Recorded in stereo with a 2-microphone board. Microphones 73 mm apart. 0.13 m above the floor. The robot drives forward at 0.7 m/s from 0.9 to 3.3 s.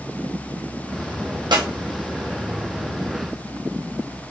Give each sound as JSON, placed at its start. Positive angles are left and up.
{"t": 1.5, "sound": "a clap", "side_deg": -75, "distance_m": 4.0}